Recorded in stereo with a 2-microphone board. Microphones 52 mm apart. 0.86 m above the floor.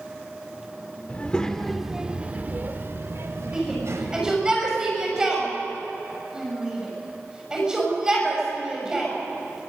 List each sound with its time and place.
1.1 s a child speaking: 30° left (ahead or behind), 1.4 m; by 4.5 s 75° right (ahead or behind), 3 m
3.5 s a shout: 15° right (ahead or behind), 5.5 m